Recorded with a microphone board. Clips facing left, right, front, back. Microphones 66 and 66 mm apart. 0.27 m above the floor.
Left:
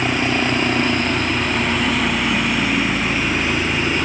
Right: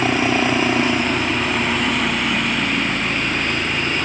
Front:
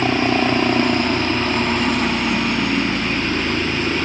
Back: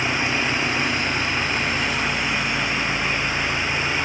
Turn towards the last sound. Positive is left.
turn(degrees=15)